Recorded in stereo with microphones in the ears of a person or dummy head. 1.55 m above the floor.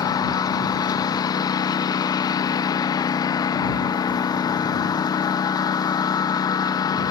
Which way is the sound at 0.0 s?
20° left (ahead or behind).